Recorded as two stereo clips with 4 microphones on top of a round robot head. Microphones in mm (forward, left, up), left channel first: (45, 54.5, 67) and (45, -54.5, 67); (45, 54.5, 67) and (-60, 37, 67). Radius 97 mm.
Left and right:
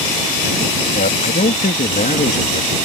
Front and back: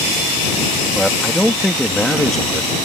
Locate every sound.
0.9 s a man speaking: 100° left